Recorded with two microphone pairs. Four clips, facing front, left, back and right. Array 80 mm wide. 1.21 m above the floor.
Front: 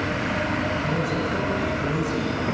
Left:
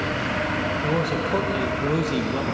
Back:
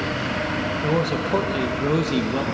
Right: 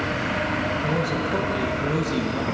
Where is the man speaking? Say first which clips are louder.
Left 1 dB, back 3 dB; 160° left, 1.6 m.